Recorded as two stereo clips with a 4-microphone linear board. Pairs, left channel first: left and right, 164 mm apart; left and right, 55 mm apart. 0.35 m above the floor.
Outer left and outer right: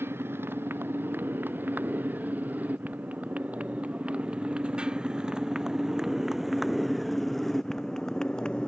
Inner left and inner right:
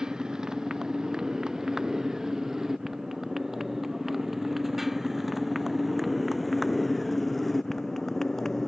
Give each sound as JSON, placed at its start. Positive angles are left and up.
{"t": 0.0, "sound": "a motorcycle", "side_deg": -15}